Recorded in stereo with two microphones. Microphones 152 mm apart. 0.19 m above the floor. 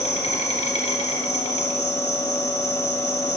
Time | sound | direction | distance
0.0 | an insect | 45° left (ahead or behind) | 1.8 m